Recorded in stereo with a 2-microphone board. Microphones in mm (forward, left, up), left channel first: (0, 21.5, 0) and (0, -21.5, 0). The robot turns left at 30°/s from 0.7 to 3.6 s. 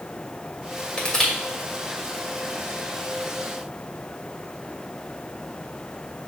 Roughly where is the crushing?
Left.